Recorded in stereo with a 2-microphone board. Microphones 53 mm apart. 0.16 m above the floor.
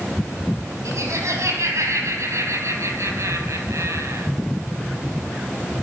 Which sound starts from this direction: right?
Laughter, at 0.8 s.